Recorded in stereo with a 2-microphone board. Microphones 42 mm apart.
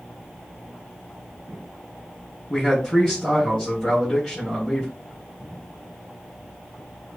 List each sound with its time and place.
2.5 s a man speaking: 10° left (ahead or behind), 3.5 m